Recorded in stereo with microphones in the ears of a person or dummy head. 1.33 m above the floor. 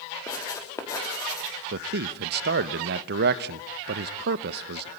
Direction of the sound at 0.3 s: 20° left (ahead or behind).